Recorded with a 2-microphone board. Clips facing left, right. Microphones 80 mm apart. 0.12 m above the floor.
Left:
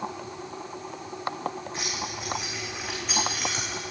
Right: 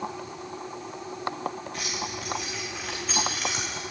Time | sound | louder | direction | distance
1.7 | keys jangling | even | 30° left (ahead or behind) | 5.5 m